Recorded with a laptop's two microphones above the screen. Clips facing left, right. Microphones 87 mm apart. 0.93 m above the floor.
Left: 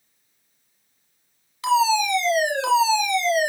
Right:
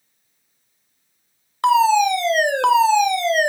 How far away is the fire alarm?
About 2 m.